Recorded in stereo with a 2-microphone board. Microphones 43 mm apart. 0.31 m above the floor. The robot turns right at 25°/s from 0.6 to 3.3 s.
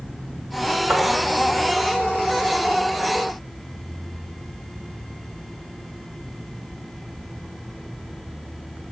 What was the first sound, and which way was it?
Tapping, 35° right (ahead or behind).